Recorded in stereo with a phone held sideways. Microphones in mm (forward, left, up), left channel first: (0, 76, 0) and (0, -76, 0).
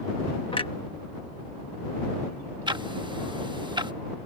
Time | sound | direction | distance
0.5 | a clunk | 35° left (ahead or behind) | ?
2.7 | ticking | 30° right (ahead or behind) | ?